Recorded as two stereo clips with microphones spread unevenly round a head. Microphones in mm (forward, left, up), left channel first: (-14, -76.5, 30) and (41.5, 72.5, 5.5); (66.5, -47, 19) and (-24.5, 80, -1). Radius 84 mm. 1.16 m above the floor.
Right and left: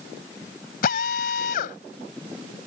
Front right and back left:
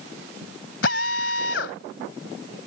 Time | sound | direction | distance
0.8 | a drill | 75° right | ?